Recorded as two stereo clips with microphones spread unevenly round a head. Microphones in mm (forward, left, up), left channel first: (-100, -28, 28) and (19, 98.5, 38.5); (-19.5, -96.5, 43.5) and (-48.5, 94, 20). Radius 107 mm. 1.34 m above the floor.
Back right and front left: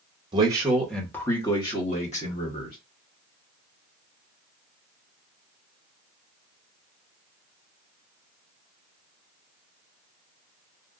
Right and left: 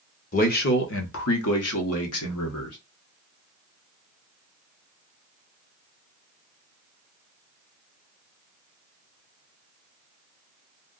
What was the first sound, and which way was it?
A man speaking, 25° right.